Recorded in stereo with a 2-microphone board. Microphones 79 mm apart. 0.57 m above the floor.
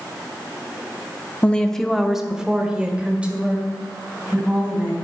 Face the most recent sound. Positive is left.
turn(degrees=-20)  # may be behind; listen again after turning